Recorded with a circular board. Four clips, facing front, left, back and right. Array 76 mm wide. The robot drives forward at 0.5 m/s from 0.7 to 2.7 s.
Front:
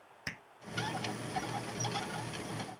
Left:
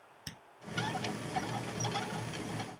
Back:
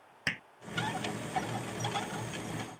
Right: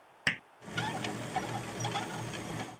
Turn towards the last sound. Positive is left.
turn(degrees=-130)